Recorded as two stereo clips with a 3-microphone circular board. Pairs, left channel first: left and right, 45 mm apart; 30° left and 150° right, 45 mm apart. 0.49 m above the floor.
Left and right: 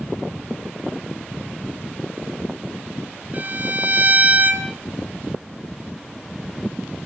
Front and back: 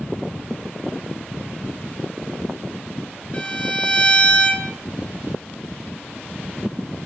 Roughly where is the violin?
Ahead right.